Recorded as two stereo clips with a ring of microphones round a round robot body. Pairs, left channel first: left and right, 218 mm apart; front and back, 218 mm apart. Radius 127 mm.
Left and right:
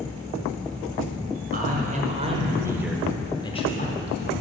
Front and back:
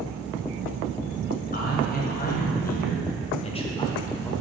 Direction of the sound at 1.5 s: 45° right.